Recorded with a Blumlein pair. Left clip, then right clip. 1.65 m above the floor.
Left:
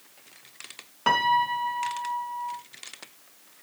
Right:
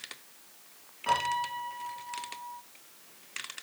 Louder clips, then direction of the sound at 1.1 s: Left 7 dB; 35° left.